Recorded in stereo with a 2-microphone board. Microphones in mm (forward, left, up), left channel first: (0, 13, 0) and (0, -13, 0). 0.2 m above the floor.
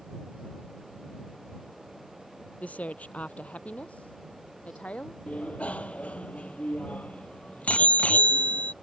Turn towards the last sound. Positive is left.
turn(degrees=55)  # may be behind; listen again after turning